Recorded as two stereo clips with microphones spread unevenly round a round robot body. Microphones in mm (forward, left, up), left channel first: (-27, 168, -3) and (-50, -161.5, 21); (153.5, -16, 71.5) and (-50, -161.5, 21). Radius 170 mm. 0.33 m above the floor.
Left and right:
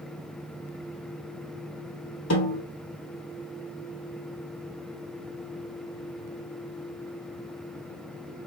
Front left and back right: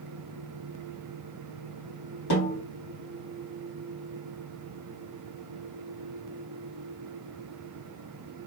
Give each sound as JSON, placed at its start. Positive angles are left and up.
{"t": 2.3, "sound": "a snare drum", "azimuth_deg": 30, "distance_m": 2.5}